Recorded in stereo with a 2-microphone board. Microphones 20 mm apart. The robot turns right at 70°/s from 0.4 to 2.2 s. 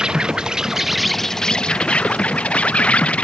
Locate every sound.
0.0 s an insect: 40° right; by 3.2 s 85° left